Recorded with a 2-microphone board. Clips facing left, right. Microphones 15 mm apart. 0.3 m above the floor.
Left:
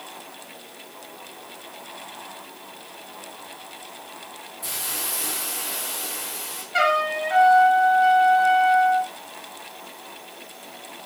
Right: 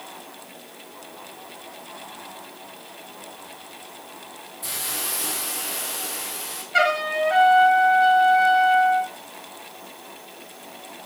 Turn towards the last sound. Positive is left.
turn(degrees=-10)  # may be behind; listen again after turning